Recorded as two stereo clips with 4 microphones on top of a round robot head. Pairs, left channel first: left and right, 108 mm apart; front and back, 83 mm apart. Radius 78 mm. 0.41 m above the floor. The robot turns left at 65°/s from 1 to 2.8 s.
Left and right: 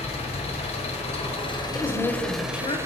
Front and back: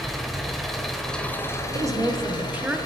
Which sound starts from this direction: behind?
A woman speaking, at 1.7 s.